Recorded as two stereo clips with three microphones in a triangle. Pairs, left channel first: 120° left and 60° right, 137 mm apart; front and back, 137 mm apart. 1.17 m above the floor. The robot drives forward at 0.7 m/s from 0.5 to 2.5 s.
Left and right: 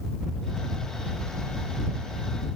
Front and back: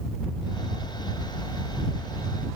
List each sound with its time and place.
Only background noise.